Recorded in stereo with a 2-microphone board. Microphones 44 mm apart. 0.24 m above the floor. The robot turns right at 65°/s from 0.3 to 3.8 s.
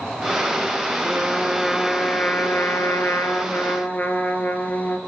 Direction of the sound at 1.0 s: 45° right.